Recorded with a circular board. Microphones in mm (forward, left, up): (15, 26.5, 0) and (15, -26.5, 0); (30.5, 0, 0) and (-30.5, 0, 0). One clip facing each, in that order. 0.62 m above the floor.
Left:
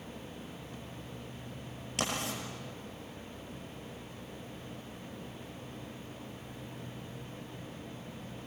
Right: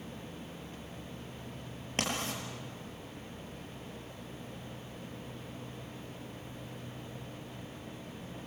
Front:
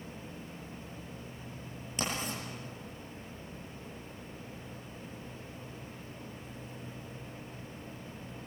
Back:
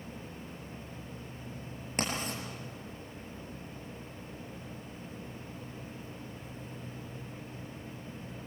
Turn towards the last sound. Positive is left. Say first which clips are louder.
# even, back 1 dB
turn(degrees=-145)